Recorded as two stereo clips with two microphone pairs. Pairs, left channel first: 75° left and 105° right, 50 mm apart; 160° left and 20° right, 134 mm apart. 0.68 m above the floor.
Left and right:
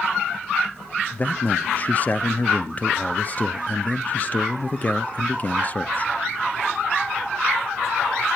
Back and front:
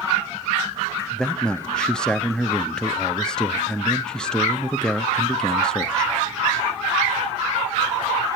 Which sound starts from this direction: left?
A man speaking, at 1.1 s.